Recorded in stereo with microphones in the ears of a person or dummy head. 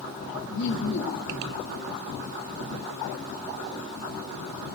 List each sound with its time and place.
0.5 s laughter: 55° left (ahead or behind), 0.5 m